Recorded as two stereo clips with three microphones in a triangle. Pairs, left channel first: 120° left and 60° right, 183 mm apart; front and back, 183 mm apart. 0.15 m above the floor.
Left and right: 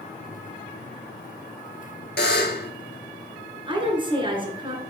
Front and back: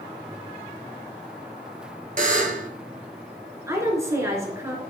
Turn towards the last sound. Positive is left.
turn(degrees=-110)